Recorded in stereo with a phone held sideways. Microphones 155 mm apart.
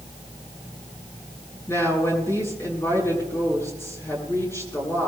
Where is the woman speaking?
20° left (ahead or behind), 9.5 m.